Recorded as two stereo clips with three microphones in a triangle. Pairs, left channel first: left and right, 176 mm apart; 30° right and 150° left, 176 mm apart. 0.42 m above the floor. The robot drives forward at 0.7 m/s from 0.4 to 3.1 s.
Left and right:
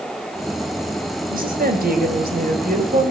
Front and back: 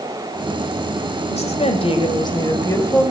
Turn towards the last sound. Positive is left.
turn(degrees=-105)